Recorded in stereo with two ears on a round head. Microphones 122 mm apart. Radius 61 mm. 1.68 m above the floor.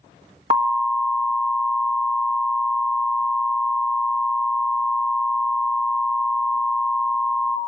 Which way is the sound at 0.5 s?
40° right (ahead or behind).